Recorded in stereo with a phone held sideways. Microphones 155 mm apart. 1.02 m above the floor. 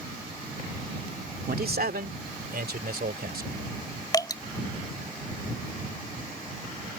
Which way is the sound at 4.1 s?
25° left (ahead or behind).